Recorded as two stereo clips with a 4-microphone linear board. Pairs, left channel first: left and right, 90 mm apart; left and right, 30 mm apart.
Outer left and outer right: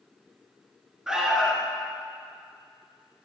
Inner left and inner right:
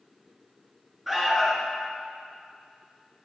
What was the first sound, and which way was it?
An alarm, 5° right (ahead or behind).